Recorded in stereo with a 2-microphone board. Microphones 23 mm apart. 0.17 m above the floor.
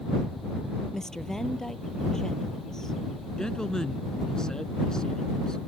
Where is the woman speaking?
25° left (ahead or behind).